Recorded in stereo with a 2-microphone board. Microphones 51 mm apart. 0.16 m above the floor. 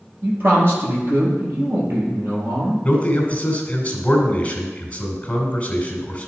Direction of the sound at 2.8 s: 25° left (ahead or behind).